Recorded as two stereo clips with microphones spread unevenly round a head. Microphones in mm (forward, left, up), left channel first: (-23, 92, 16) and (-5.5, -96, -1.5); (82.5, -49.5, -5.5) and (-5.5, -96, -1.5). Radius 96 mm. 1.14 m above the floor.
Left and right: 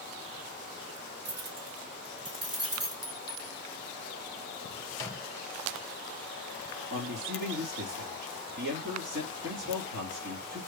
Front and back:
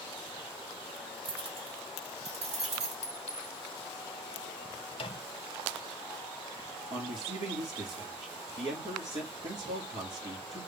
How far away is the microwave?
About 0.7 m.